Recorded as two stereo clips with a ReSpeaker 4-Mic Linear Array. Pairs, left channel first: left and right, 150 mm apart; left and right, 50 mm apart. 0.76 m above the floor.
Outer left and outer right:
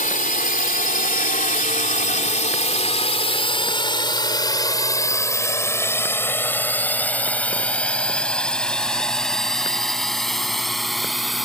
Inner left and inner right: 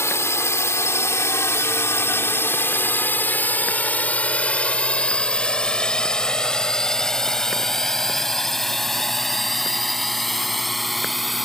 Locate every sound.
0.0 s a drone: 65° left (ahead or behind); by 11.4 s centre (ahead or behind)